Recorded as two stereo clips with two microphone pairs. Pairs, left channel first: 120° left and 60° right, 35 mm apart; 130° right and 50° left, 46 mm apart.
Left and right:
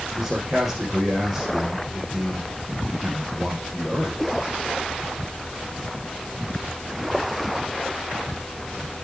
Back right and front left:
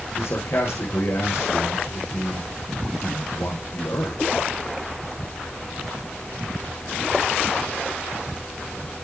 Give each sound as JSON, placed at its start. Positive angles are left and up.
{"t": 0.2, "sound": "a man speaking", "azimuth_deg": -140, "distance_m": 4.5}